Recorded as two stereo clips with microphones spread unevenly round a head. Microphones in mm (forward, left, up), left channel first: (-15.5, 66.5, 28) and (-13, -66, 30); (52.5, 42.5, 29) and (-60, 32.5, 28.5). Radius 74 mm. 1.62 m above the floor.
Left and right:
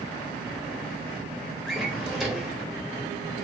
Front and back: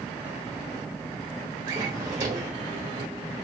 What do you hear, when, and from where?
1.7 s a drawer: straight behind, 1.1 m